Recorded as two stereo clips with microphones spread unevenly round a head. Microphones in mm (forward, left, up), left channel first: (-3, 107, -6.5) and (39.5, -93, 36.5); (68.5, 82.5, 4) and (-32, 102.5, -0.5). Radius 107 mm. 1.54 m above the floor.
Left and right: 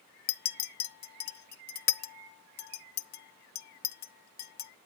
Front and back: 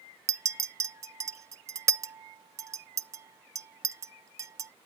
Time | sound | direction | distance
0.3 | a clink | 130° left | 0.5 m